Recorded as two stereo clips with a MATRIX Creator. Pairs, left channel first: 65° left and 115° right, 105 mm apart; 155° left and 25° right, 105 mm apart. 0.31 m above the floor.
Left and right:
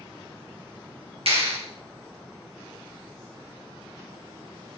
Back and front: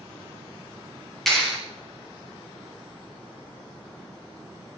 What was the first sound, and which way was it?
A clap, 115° right.